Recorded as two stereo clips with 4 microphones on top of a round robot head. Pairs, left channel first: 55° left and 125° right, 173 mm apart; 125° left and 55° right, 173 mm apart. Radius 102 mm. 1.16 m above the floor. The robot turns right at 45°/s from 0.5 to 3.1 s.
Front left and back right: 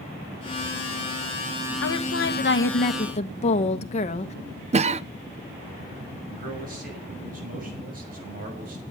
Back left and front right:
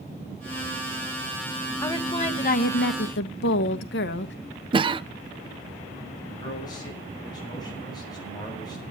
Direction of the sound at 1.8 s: 50° left.